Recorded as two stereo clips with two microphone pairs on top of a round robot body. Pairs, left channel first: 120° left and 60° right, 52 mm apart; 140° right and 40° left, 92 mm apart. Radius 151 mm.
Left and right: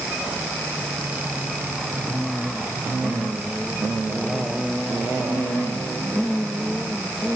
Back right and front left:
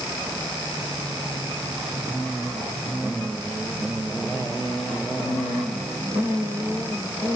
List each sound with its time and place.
Only background noise.